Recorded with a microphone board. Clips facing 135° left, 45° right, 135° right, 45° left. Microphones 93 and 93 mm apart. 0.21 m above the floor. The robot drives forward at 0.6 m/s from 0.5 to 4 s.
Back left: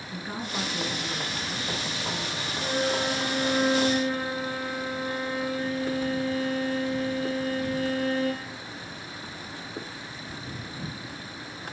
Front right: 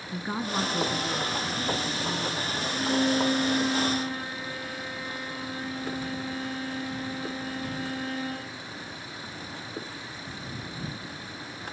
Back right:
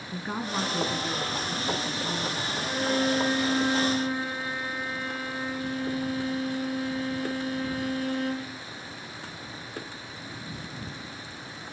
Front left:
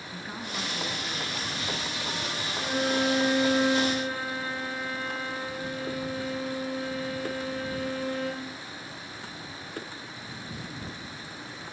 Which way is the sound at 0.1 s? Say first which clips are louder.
Front right 4 dB, back right 7 dB; 90° right.